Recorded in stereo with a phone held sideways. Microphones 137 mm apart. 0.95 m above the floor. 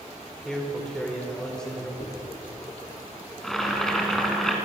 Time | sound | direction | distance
0.5 | a man speaking | 5° left (ahead or behind) | 4 m
2.0 | a dropped coin | 75° left (ahead or behind) | 8 m
3.4 | boiling | centre (ahead or behind) | 4.5 m